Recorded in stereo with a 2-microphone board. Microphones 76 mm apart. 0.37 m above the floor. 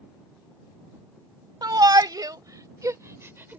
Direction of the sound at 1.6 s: 60° right (ahead or behind).